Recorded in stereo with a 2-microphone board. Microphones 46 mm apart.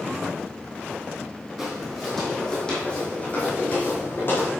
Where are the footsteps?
5° right (ahead or behind), 3 m; by 4.5 s 50° left (ahead or behind), 3.5 m.